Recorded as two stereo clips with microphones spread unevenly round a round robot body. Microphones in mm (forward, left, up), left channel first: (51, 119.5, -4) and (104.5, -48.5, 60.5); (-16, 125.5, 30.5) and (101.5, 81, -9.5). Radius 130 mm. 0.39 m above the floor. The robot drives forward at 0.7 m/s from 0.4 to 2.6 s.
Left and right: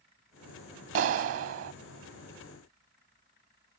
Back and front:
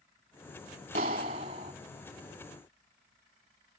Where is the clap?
70° right; by 1.7 s 85° right.